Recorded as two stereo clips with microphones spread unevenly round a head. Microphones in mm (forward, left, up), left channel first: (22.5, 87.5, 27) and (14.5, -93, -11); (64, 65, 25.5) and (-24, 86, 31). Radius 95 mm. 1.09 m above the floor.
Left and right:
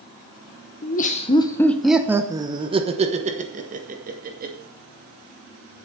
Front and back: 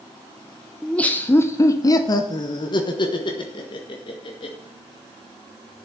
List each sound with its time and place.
0.8 s laughter: 60° left, 0.9 m; by 4.5 s 55° right, 2.5 m